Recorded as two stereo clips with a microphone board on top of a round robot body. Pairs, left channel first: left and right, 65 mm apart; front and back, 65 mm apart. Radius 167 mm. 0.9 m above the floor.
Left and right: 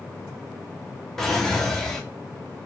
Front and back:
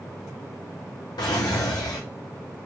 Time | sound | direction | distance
1.2 | a drawer | 5° left | 0.5 m